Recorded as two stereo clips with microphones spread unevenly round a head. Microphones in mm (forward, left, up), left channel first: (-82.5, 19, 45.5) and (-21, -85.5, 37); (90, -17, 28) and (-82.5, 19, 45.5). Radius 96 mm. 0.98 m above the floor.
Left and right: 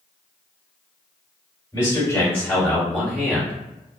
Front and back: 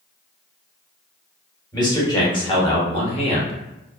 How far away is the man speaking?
About 1.5 m.